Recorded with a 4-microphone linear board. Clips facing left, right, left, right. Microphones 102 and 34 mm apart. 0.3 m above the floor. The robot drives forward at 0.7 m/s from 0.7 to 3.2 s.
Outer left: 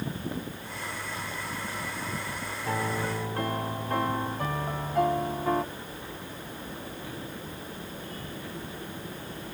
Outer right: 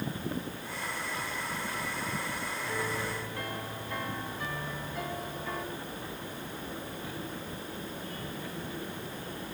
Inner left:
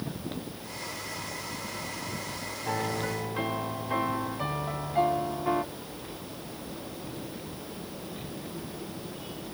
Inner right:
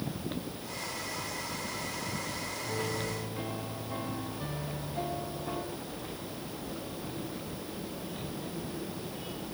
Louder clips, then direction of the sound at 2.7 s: Outer left 6 dB, inner left 5 dB; 60° left (ahead or behind).